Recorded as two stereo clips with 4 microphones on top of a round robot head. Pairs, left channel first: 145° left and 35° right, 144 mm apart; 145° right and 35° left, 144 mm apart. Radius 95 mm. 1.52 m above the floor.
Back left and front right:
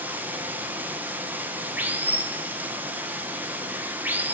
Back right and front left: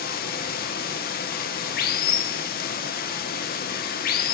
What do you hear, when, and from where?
0.0 s running water: 115° right, 1.0 m